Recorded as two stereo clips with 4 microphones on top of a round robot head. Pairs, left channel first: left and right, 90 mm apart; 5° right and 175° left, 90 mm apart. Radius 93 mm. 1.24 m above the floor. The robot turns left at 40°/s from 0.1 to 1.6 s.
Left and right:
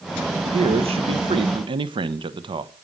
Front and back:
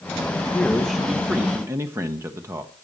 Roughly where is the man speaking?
Right.